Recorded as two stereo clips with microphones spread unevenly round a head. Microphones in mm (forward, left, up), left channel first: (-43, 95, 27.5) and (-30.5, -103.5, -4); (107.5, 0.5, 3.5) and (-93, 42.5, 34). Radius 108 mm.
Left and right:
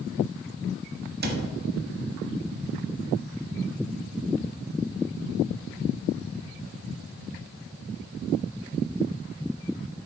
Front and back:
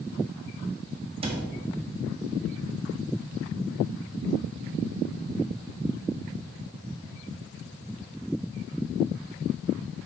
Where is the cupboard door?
130° right, 1.1 m.